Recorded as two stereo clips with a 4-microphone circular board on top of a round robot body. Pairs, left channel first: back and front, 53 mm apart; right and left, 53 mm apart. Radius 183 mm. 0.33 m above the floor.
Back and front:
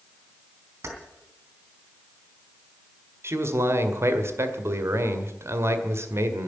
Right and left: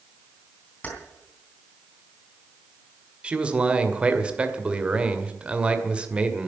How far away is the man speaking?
About 2 m.